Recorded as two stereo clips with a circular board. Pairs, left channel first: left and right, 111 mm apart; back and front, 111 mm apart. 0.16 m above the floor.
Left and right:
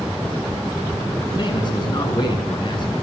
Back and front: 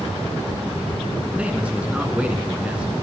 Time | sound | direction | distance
1.3 | a man speaking | 75° left | 2.0 m